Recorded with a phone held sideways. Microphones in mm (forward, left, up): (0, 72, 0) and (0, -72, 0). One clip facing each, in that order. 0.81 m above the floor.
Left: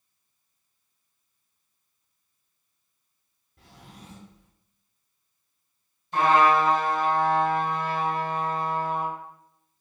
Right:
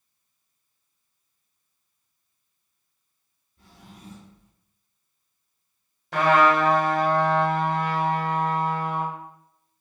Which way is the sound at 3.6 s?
70° left (ahead or behind).